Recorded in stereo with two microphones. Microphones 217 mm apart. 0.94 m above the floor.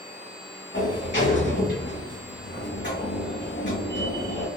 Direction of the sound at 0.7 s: 50° left (ahead or behind).